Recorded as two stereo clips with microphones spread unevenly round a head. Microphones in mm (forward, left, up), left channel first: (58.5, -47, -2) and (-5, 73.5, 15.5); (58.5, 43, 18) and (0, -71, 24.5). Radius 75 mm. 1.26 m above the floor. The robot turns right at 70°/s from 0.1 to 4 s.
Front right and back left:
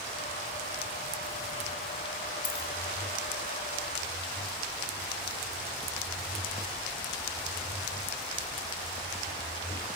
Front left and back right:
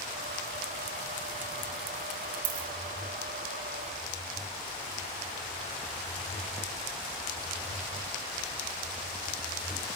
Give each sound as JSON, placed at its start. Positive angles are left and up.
{"t": 2.4, "sound": "a dropped coin", "azimuth_deg": -145, "distance_m": 2.0}